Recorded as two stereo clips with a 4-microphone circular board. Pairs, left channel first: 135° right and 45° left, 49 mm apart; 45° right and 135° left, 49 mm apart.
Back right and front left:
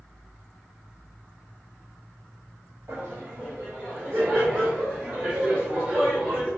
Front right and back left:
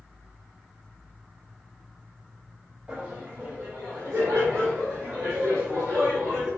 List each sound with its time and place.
2.9 s laughter: 70° left, 1.1 m; by 6.5 s 115° left, 4 m